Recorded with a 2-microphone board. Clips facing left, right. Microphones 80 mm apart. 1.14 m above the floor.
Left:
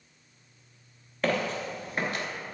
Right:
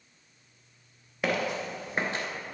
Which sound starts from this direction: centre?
Footsteps, at 1.2 s.